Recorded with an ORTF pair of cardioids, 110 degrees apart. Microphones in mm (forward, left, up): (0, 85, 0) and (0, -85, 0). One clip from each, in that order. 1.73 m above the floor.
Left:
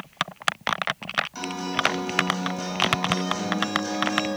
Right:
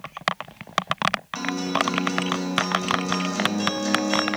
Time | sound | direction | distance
1.4 | a guitar | 40° right | 2.5 m